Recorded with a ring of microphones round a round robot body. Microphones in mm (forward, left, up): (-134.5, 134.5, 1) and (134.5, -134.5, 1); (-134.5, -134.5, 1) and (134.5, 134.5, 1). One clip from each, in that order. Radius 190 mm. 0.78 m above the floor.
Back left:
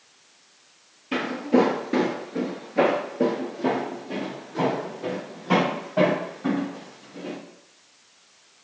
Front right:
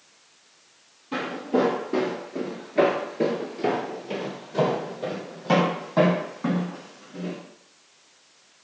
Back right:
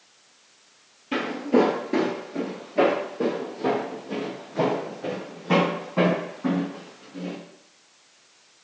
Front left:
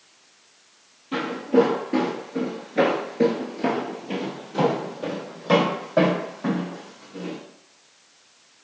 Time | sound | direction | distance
1.1 | footsteps | 170° left | 1.1 m